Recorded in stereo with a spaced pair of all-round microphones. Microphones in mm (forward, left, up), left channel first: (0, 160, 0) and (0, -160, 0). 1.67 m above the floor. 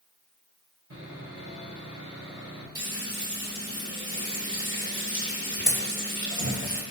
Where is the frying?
45° right (ahead or behind), 4.5 m.